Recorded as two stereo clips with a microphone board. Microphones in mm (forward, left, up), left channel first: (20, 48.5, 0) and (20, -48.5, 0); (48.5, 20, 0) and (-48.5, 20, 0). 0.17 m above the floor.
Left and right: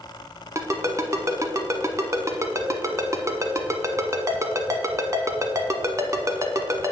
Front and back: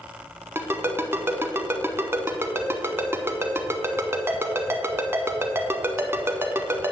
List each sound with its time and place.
0.6 s a ringtone: 130° right, 0.6 m